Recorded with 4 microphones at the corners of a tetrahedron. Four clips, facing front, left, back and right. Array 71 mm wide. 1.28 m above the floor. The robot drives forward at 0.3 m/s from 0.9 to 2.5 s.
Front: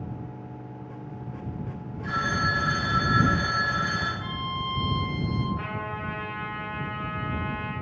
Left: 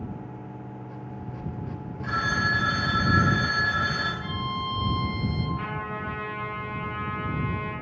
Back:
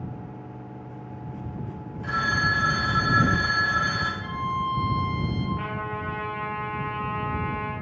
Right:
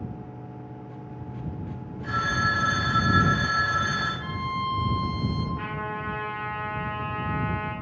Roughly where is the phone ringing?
Behind left.